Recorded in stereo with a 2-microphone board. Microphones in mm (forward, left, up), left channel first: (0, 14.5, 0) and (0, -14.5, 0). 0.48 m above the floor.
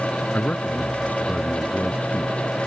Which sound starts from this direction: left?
A man speaking, at 0.3 s.